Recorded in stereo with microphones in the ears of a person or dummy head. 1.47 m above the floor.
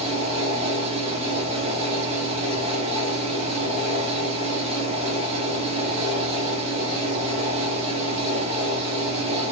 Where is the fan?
30° right (ahead or behind), 0.8 m.